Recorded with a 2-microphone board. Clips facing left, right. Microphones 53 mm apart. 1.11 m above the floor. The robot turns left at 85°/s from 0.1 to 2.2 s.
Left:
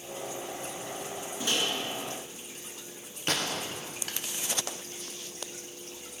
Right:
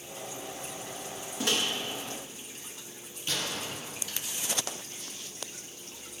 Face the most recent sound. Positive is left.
turn(degrees=55)  # may be behind; listen again after turning